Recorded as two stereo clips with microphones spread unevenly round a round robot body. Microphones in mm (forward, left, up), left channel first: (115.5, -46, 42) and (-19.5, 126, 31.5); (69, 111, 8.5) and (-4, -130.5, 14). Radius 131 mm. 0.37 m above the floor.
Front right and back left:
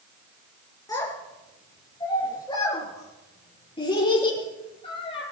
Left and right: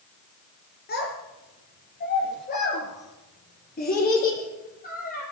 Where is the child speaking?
20° left, 4.5 m; by 5.2 s 10° left, 7 m.